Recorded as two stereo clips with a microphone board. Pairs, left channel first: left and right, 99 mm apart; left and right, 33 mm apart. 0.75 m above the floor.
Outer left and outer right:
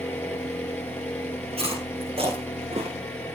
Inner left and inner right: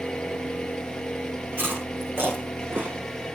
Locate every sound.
0.0 s an engine running: 20° left (ahead or behind), 8 m
1.5 s chewing: 85° right, 7 m